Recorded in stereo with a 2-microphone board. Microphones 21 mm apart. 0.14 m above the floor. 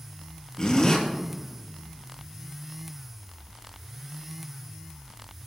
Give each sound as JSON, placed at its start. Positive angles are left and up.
{"t": 0.6, "sound": "a zipper", "side_deg": 35, "distance_m": 3.0}